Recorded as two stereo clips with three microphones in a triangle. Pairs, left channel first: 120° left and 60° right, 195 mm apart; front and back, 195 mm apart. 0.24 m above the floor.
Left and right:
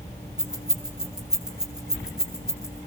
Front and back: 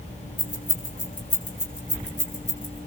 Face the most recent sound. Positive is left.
turn(degrees=25)